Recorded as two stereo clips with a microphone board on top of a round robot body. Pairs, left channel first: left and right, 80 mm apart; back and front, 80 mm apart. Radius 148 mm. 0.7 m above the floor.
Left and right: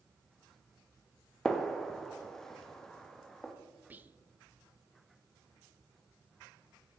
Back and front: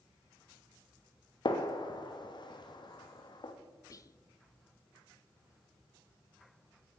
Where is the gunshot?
175° left, 1.7 m.